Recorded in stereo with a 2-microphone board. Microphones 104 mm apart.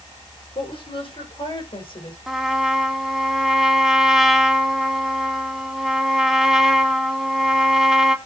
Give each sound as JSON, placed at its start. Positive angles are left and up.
{"t": 0.6, "sound": "a woman speaking", "side_deg": 55, "distance_m": 7.5}
{"t": 2.3, "sound": "a trumpet", "side_deg": -5, "distance_m": 1.4}